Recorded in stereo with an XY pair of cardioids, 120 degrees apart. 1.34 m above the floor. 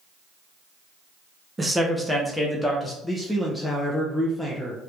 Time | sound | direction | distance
1.6 | a man speaking | 15° right | 0.7 m
3.0 | a man speaking | 5° left | 0.6 m